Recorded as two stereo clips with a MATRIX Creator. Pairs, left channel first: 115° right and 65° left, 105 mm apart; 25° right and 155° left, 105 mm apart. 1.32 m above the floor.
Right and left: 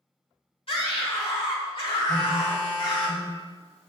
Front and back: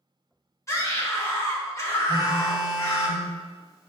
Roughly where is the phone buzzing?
Ahead right.